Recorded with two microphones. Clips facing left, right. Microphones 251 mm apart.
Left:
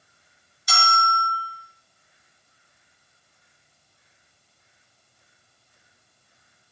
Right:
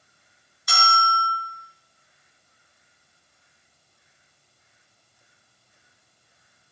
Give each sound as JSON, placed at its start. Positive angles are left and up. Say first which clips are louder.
{"t": 0.7, "sound": "a bell", "louder": "even", "side_deg": -70, "distance_m": 4.5}